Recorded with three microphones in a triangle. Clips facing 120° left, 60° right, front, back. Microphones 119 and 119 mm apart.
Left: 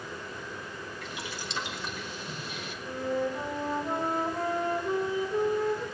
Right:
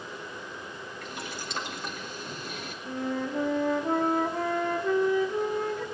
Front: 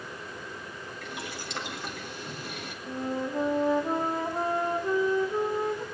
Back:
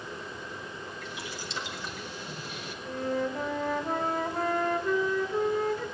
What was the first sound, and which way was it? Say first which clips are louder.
Boiling: right 3 dB, front 1 dB; 25° right.